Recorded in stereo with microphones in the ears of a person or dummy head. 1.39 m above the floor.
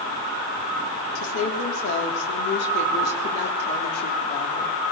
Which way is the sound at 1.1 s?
70° left (ahead or behind).